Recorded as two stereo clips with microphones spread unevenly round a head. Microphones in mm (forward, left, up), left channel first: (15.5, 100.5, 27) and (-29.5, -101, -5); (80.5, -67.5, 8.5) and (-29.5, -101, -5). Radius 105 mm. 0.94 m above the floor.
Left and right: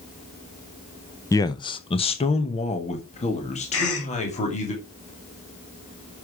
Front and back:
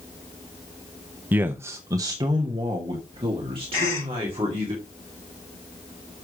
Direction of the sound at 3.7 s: 50° left.